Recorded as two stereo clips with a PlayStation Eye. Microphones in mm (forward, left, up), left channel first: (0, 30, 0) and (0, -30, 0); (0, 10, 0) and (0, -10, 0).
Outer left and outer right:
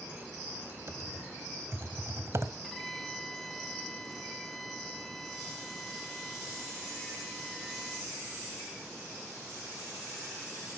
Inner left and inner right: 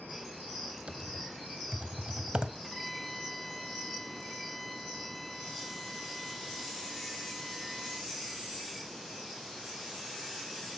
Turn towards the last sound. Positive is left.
turn(degrees=0)  # may be behind; listen again after turning